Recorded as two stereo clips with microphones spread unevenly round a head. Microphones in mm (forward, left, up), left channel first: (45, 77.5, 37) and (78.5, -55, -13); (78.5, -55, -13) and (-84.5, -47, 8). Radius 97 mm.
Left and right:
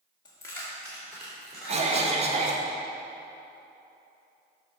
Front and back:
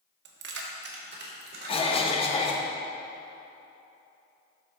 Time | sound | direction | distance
0.2 | keys jangling | 165° left | 0.9 m
1.7 | a cough | 55° right | 1.5 m